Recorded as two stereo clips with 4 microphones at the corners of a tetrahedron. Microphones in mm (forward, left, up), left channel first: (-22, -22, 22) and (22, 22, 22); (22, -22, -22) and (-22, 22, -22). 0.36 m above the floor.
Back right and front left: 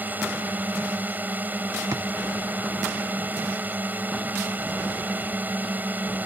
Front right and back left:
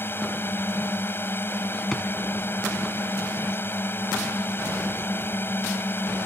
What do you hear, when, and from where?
0.0 s a drone: 5° right
1.9 s a drawer: 40° left